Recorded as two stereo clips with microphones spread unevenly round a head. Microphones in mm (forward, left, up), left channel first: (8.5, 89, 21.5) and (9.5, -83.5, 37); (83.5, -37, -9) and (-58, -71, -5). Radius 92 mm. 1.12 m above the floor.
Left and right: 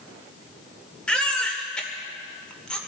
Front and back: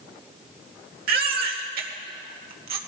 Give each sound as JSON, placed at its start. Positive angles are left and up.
{"t": 1.1, "sound": "a baby crying", "azimuth_deg": 175, "distance_m": 1.5}